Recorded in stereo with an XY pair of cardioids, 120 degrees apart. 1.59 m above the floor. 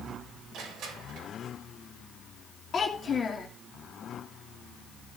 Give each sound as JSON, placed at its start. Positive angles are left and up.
{"t": 0.5, "sound": "crushing", "azimuth_deg": -65, "distance_m": 6.0}
{"t": 2.7, "sound": "a child speaking", "azimuth_deg": 40, "distance_m": 2.5}